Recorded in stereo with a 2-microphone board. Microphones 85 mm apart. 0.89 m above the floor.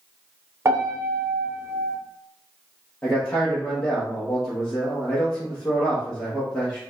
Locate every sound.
0.7 s a piano: 35° right (ahead or behind), 0.7 m
3.0 s a man speaking: 20° left (ahead or behind), 1.0 m